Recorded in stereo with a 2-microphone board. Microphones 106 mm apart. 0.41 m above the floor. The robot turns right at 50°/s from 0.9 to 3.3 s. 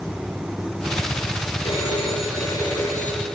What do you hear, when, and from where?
1.6 s a phone ringing: 90° left, 4.5 m; by 3.2 s 170° left, 4.5 m